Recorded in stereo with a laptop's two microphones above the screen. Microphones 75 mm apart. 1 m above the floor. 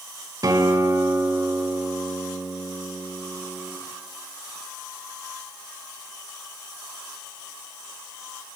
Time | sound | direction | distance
0.4 | a guitar | 55° right (ahead or behind) | 1.7 m